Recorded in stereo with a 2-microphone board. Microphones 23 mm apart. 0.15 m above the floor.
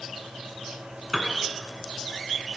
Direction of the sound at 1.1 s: 20° right (ahead or behind).